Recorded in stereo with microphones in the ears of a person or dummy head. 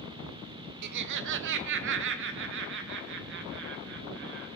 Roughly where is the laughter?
Right.